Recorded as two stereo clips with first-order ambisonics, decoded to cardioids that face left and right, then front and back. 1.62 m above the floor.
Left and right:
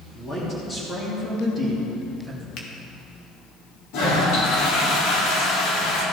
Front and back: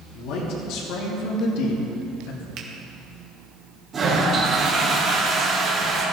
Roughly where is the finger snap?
Behind left.